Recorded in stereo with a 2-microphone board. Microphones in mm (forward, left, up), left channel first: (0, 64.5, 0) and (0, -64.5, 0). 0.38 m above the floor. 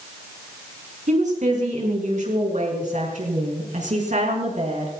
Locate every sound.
1.1 s a woman speaking: 70° right (ahead or behind), 4.5 m